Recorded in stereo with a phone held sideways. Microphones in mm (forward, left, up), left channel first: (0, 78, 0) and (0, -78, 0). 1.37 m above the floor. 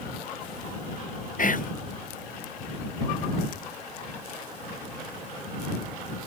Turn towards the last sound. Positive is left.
turn(degrees=60)  # may be behind; listen again after turning